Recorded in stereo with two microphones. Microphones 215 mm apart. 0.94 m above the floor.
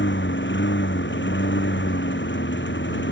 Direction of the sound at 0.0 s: 55° left (ahead or behind).